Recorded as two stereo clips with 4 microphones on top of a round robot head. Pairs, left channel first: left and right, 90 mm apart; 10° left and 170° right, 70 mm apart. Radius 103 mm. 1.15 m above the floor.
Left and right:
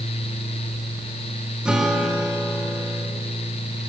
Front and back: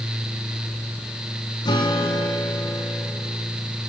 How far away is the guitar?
About 2.5 m.